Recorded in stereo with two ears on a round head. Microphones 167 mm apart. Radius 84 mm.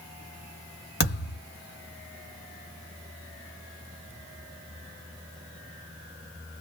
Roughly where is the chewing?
I don't hear chewing.